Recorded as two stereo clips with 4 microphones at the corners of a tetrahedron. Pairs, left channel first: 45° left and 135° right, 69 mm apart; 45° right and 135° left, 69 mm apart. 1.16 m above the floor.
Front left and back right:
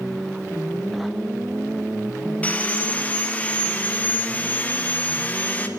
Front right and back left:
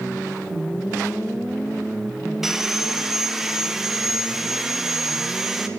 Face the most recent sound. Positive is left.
turn(degrees=60)